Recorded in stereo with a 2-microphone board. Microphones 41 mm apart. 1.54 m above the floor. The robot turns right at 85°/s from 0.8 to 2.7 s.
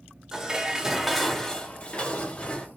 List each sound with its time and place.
0.3 s dishes clattering: 15° right (ahead or behind), 0.5 m; by 2.7 s 20° left (ahead or behind), 0.5 m